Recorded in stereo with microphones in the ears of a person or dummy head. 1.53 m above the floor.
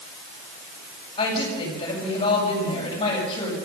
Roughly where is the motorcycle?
No motorcycle in this recording.